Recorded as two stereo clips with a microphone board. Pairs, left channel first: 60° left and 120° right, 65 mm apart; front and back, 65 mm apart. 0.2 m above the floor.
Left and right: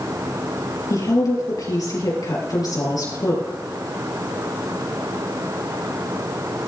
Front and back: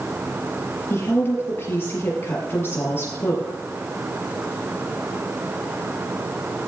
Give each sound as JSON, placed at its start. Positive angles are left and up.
{"t": 0.9, "sound": "a woman speaking", "azimuth_deg": 50, "distance_m": 5.0}